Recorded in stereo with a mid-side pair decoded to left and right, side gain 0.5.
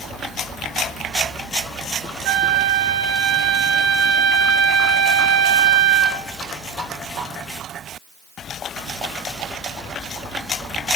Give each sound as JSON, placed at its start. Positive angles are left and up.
{"t": 2.2, "sound": "a flute", "azimuth_deg": -70, "distance_m": 0.7}